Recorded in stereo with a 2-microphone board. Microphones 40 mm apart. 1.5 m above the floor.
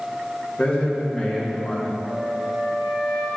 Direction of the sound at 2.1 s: Centre (ahead or behind).